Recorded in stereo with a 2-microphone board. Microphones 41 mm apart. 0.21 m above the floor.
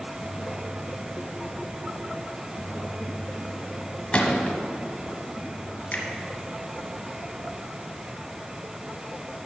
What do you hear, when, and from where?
4.1 s a gunshot: 25° left (ahead or behind), 1.5 m
5.9 s a finger snap: 35° left (ahead or behind), 2 m